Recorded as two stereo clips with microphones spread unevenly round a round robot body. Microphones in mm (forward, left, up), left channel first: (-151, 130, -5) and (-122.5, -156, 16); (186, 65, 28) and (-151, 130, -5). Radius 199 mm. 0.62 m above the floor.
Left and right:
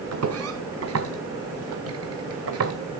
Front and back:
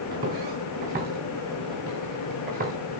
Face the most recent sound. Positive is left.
turn(degrees=-120)